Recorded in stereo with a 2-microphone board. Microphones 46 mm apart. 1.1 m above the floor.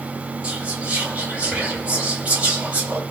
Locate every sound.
0.4 s whispering: 25° right (ahead or behind), 1.8 m